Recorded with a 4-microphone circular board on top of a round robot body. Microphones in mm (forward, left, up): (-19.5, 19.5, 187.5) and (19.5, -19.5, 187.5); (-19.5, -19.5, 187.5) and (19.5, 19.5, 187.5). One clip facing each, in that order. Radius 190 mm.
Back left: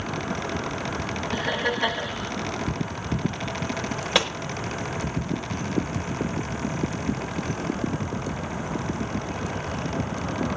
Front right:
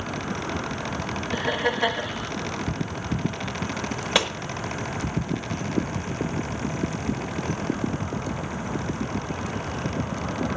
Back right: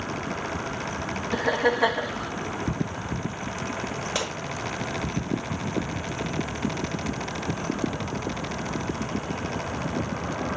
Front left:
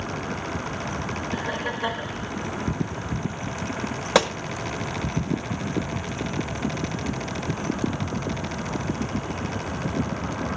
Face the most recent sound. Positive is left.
turn(degrees=45)